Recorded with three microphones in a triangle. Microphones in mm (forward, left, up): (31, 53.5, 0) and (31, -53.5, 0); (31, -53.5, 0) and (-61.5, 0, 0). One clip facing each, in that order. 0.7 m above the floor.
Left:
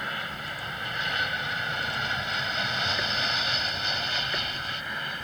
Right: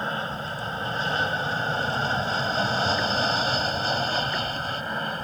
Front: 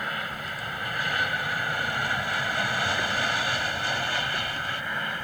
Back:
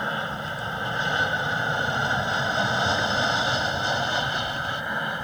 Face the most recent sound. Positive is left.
turn(degrees=-140)